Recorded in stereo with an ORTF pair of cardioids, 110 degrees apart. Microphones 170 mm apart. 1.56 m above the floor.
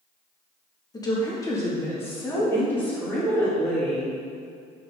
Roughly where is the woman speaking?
Ahead left.